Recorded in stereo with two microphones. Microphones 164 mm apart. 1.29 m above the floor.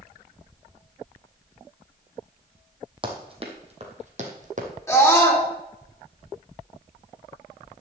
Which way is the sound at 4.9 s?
20° left (ahead or behind).